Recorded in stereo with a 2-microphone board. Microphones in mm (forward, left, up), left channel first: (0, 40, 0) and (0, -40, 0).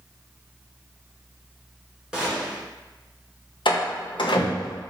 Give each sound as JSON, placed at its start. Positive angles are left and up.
{"t": 2.1, "sound": "a gunshot", "side_deg": -10, "distance_m": 1.3}
{"t": 3.6, "sound": "a door slam", "side_deg": 80, "distance_m": 0.7}